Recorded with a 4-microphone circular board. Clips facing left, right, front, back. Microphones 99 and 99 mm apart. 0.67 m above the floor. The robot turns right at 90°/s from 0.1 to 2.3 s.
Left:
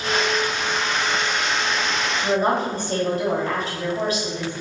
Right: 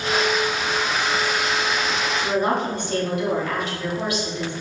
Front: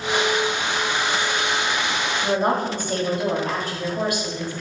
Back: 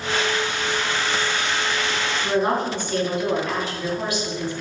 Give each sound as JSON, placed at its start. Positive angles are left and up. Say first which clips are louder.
{"t": 2.2, "sound": "a woman speaking", "louder": "left 2 dB, even", "azimuth_deg": 30, "distance_m": 3.5}